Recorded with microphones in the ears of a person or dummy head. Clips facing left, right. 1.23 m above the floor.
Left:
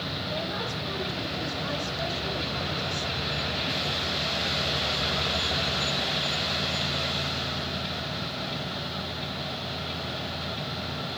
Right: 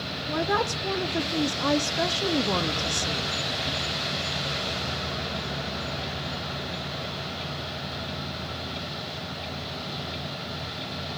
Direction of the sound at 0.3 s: 70° right (ahead or behind).